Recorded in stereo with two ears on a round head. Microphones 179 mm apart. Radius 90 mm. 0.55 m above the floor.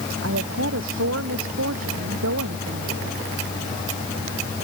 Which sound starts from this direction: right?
A woman speaking, at 0.2 s.